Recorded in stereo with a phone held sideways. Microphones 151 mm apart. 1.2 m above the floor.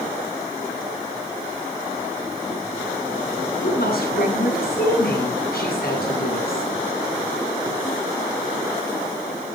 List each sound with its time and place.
3.6 s a woman speaking: 70° left (ahead or behind), 8.5 m